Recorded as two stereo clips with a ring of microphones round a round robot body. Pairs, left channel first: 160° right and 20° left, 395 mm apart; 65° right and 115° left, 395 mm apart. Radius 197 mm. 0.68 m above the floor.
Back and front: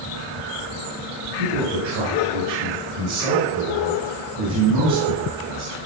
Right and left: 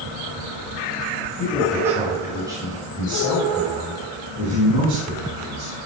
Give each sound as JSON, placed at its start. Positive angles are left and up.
{"t": 1.4, "sound": "a man speaking", "azimuth_deg": 25, "distance_m": 6.0}